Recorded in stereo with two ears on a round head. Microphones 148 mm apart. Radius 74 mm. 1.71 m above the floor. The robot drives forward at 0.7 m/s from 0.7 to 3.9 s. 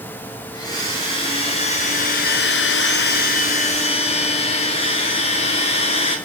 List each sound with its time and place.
0.5 s a blender: 25° left (ahead or behind), 1.6 m; by 6.2 s 40° left (ahead or behind), 1.1 m